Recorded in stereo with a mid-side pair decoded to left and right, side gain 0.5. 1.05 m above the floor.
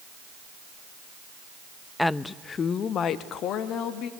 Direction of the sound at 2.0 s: 10° left.